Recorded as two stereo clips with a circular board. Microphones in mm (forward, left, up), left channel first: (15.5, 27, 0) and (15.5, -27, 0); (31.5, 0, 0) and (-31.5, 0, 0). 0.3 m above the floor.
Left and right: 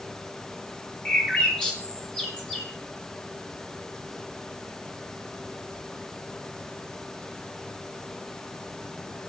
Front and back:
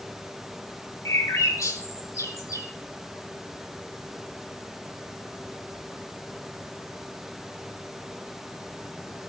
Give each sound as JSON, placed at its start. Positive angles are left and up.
{"t": 1.1, "sound": "a bird", "azimuth_deg": 20, "distance_m": 2.5}